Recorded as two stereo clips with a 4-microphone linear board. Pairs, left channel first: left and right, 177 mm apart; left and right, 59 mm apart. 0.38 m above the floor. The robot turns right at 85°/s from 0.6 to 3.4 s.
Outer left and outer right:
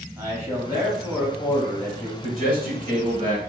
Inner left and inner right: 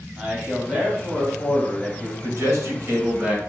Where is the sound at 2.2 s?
120° right, 1.5 m; by 3.4 s 20° right, 1.5 m.